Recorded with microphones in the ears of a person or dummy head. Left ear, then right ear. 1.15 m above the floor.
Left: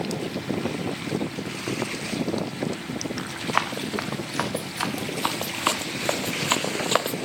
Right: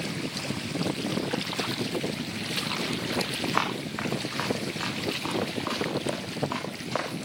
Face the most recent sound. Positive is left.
turn(degrees=45)  # may be behind; listen again after turning